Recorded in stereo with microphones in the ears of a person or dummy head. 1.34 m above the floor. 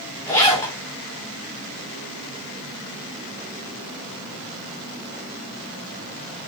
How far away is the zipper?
About 2.5 m.